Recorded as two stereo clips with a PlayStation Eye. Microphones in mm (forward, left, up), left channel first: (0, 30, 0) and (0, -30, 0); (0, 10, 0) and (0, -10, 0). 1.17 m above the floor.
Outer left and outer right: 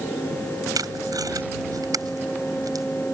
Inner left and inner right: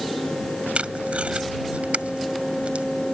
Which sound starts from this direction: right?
Tape being pulled, at 0.8 s.